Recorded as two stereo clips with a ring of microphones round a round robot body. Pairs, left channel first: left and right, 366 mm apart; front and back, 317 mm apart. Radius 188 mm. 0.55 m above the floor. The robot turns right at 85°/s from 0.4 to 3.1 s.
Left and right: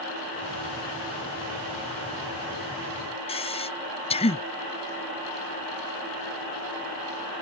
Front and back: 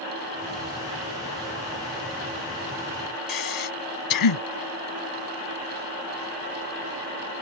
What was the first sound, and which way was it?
Breathing, 15° left.